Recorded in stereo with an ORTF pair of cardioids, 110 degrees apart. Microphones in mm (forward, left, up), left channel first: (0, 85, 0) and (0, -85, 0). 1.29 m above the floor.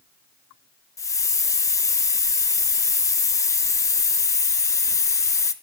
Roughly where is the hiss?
Ahead.